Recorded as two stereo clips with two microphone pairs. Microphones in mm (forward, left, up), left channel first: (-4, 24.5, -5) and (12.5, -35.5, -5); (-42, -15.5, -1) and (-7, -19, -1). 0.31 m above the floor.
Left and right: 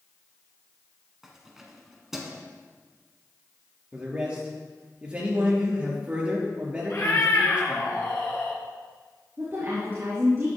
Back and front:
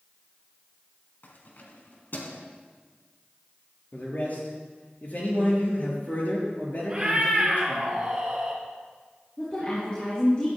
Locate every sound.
1.2 s keys jangling: 160° right, 2.0 m
3.9 s a man speaking: 145° right, 5 m
6.9 s a cat meowing: 65° left, 3.5 m
9.4 s a woman speaking: 125° right, 4.5 m